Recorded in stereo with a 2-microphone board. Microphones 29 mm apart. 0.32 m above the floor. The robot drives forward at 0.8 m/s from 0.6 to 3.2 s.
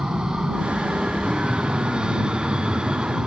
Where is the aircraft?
35° right (ahead or behind); by 3.3 s 30° right (ahead or behind).